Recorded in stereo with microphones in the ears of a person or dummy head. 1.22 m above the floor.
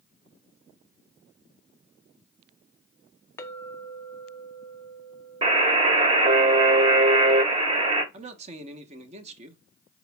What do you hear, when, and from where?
3.4 s a clink: 20° left (ahead or behind), 0.5 m
5.4 s a buzzer: 35° right (ahead or behind), 1.2 m
8.1 s a man speaking: 40° right (ahead or behind), 0.9 m